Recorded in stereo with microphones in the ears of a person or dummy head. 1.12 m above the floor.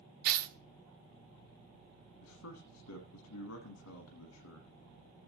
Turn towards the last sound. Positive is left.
turn(degrees=85)